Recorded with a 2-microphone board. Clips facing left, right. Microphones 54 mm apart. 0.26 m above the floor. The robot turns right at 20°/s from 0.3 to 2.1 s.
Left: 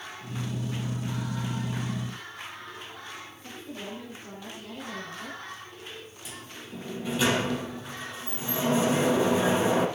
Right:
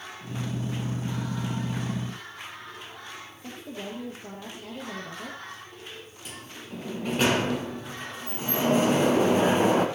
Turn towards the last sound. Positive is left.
turn(degrees=-55)  # may be behind; listen again after turning